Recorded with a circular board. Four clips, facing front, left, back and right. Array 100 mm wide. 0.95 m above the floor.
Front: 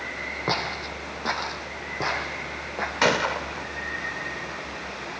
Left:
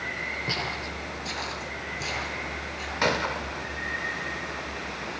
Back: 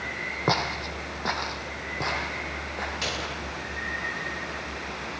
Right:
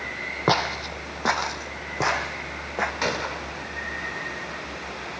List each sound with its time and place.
0.5 s footsteps: 105° right, 2 m; by 2.9 s 80° right, 4 m
3.0 s a gunshot: 10° left, 1.1 m